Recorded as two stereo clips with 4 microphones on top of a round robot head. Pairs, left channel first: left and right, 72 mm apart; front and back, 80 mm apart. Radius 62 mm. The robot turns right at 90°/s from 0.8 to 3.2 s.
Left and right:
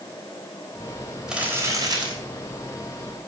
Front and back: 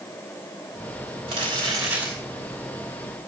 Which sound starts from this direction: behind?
Crumpling, at 1.3 s.